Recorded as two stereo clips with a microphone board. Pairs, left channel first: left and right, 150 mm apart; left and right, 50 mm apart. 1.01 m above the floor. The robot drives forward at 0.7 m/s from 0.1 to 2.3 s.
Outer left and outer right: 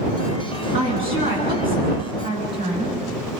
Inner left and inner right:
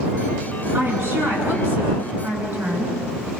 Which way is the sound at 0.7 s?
40° right (ahead or behind).